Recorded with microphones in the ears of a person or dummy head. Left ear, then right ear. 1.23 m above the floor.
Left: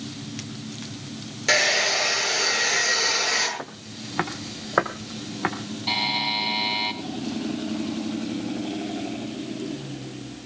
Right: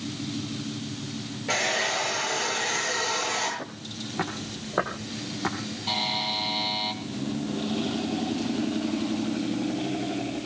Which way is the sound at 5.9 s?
15° left (ahead or behind).